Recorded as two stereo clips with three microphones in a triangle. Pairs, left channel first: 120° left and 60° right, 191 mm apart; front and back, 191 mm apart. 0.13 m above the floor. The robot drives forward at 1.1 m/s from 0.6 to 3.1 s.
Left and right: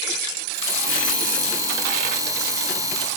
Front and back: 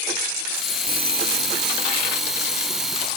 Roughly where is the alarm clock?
Behind left.